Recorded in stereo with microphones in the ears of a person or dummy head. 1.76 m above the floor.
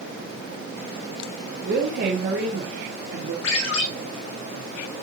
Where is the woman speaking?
50° right (ahead or behind), 1.6 m.